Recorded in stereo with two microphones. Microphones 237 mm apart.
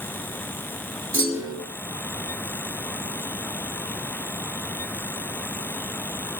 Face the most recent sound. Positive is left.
turn(degrees=-65)  # may be behind; listen again after turning